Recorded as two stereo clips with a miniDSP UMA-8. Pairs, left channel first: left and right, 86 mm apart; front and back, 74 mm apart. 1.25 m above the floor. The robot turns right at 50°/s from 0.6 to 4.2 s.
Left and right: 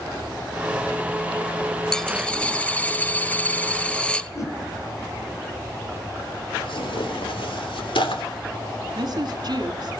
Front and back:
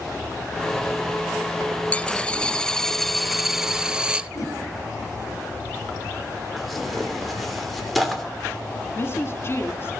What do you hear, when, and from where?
1.9 s a dropped coin: 25° left, 0.5 m; by 4.3 s 140° left, 0.5 m
4.3 s a whoosh: 40° left, 4.5 m
6.6 s tearing paper: 90° left, 3 m
8.9 s a woman speaking: 55° right, 3 m